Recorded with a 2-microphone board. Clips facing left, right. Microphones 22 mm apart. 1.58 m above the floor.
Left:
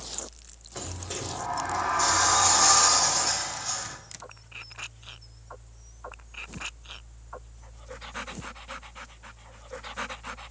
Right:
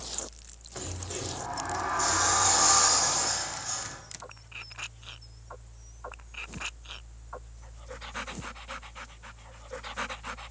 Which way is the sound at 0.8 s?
30° left (ahead or behind).